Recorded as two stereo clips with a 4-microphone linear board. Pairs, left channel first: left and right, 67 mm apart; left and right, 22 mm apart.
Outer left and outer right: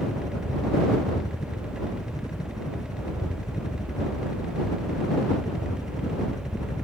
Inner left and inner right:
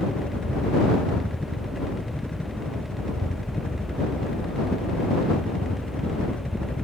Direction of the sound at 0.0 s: 70° left (ahead or behind).